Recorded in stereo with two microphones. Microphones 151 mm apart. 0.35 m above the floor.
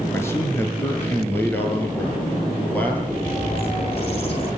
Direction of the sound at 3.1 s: 40° left (ahead or behind).